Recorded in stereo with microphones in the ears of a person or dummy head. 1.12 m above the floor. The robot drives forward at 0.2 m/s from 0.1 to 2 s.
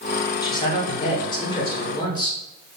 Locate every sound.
0.4 s a man speaking: 20° left (ahead or behind), 0.6 m; by 2.4 s 25° left (ahead or behind), 0.6 m